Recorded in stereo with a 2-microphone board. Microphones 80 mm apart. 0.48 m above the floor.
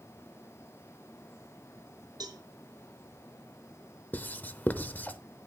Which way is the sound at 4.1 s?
20° left (ahead or behind).